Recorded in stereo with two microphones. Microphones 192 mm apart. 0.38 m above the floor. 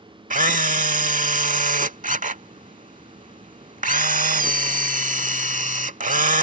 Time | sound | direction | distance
0.3 | a camera shutter | 40° right (ahead or behind) | ?